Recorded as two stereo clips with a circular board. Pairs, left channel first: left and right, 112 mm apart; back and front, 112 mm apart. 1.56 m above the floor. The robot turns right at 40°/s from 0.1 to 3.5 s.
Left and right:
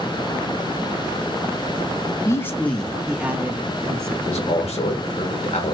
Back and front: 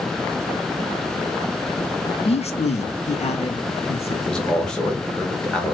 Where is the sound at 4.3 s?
95° left, 1.5 m.